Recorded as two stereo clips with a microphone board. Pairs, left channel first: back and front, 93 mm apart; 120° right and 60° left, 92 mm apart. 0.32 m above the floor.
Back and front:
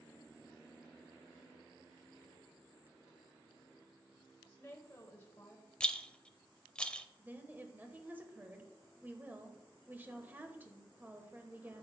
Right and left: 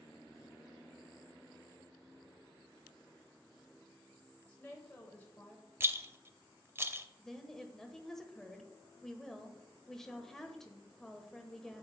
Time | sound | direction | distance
4.5 | a woman speaking | 165° right | 1.3 m
5.8 | a rattle | 105° left | 0.5 m
7.2 | a woman speaking | 40° right | 1.1 m